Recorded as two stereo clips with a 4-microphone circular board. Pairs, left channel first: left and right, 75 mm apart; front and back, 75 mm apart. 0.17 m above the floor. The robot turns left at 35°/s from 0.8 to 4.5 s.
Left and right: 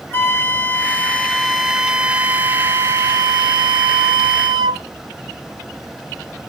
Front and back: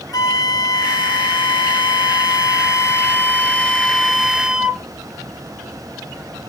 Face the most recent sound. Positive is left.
turn(degrees=-100)